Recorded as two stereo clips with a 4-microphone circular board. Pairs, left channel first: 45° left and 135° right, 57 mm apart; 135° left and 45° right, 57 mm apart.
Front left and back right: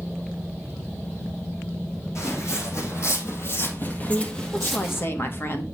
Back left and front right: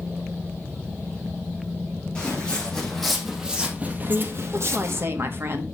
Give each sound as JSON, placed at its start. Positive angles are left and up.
{"t": 2.1, "sound": "footsteps", "azimuth_deg": 65, "distance_m": 3.0}
{"t": 4.1, "sound": "a woman speaking", "azimuth_deg": 0, "distance_m": 1.5}